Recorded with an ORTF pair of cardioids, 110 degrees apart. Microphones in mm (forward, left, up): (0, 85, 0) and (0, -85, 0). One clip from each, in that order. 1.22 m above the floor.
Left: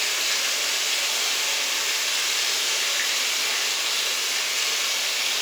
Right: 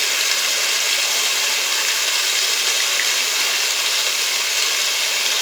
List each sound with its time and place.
0.0 s running water: 50° right, 3 m